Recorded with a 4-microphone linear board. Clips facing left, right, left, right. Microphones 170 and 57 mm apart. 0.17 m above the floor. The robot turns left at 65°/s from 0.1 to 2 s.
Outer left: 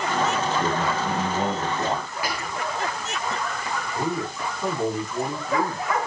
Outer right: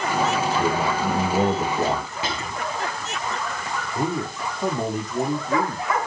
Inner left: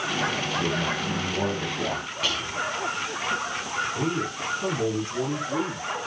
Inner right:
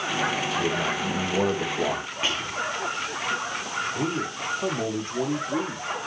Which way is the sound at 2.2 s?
25° right (ahead or behind).